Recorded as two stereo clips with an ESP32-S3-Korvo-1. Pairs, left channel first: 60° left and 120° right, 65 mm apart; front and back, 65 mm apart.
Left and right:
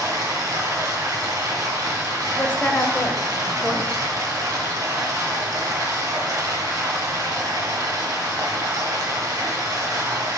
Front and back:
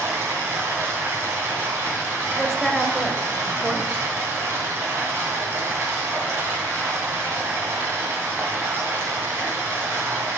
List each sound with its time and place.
0.0 s running water: 135° right, 2.5 m
2.4 s a woman speaking: 95° left, 1.1 m